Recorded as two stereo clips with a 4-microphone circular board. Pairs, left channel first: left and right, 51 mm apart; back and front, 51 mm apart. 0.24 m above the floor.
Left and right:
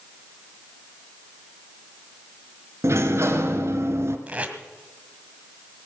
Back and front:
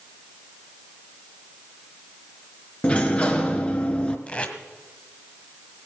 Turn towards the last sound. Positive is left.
turn(degrees=-135)